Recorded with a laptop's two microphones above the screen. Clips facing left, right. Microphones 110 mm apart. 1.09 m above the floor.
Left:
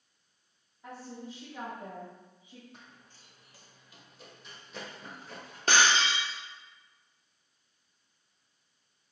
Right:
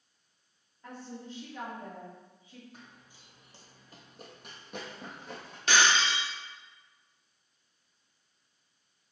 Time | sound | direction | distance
0.8 | a woman speaking | 10° left (ahead or behind) | 1.9 m
2.7 | running footsteps | centre (ahead or behind) | 1.5 m
5.7 | breaking glass | 45° left (ahead or behind) | 1.0 m